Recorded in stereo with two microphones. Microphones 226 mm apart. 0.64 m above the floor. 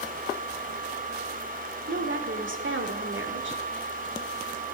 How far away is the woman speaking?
About 2.5 m.